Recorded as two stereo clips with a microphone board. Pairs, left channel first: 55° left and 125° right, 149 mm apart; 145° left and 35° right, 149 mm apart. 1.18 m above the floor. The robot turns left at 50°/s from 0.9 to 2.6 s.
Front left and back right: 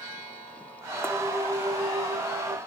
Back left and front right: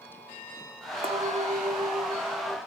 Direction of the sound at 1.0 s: 55° right.